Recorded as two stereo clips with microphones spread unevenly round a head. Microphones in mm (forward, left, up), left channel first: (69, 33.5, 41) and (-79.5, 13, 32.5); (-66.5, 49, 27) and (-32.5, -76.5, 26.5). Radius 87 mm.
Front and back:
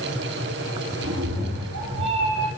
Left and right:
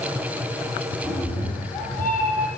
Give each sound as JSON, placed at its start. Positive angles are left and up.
{"t": 1.0, "sound": "a cat meowing", "azimuth_deg": 180, "distance_m": 6.5}